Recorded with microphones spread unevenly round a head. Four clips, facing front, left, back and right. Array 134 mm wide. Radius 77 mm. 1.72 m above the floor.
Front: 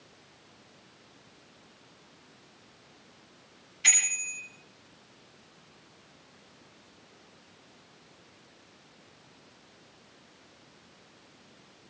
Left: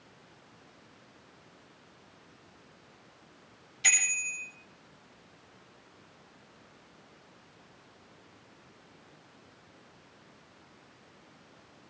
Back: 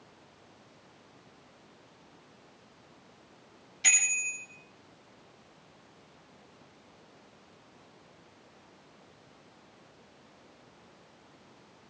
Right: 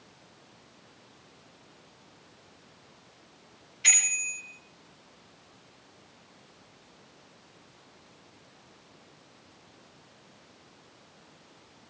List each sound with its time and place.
3.8 s a bicycle bell: 155° left, 7 m